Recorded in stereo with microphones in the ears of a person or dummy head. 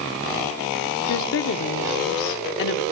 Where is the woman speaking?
70° left (ahead or behind), 1.3 m.